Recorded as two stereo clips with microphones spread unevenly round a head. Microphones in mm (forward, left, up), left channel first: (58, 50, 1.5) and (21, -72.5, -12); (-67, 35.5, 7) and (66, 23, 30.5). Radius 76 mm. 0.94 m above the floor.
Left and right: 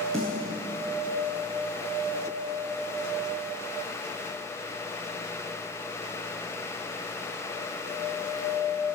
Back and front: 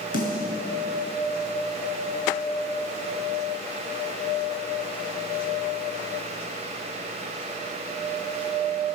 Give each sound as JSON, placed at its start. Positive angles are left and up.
{"t": 0.1, "sound": "a snare drum", "azimuth_deg": 160, "distance_m": 7.5}